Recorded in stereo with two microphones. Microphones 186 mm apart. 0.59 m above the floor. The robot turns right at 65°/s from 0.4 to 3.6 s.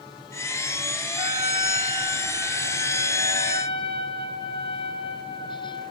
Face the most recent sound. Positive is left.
turn(degrees=30)  # may be behind; listen again after turning